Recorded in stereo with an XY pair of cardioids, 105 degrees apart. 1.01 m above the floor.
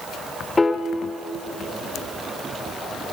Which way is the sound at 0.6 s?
15° left.